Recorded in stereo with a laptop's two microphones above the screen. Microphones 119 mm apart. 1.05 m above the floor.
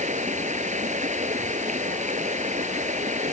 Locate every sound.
0.0 s running water: 90° right